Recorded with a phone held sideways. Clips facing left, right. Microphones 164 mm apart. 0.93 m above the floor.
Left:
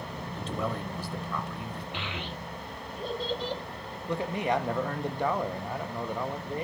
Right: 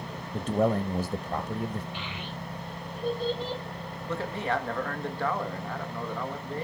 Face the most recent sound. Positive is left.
turn(degrees=15)  # may be behind; listen again after turning